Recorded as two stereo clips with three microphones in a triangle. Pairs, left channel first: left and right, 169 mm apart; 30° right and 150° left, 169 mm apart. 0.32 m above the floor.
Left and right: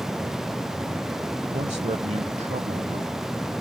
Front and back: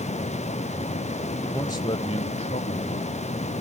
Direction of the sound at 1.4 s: 95° right.